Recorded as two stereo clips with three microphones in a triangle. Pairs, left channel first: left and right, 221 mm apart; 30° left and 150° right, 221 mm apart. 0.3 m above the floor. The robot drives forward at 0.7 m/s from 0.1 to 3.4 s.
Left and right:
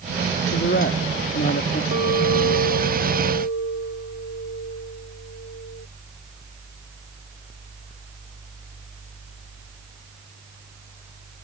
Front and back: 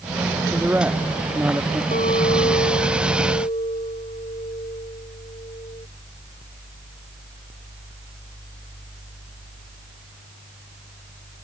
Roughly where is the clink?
Left.